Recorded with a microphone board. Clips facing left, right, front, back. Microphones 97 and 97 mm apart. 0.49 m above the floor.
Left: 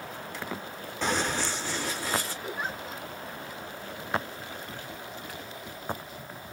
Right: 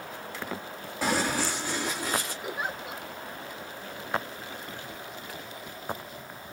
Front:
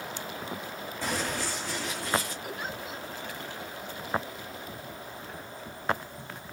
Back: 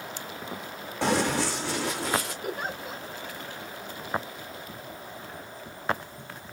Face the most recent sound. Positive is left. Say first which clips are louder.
# right 1 dB, back 3 dB
turn(degrees=-165)